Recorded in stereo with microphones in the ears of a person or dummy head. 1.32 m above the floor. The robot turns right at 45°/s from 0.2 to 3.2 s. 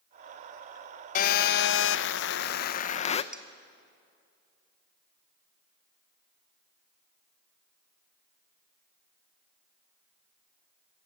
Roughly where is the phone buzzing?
Ahead left.